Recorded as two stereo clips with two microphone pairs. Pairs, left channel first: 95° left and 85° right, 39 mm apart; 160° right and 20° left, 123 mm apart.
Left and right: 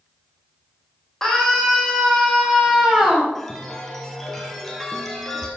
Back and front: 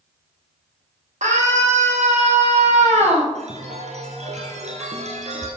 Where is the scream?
15° left, 4.5 m; by 3.2 s 5° right, 4 m.